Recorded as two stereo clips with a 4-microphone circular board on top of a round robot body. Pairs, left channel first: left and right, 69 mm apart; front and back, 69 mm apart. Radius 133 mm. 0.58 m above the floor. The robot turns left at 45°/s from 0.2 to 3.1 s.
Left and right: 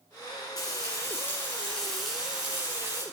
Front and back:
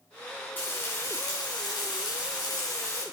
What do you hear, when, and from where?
0.6 s frying: 65° left, 9.5 m; by 3.0 s 50° right, 9.5 m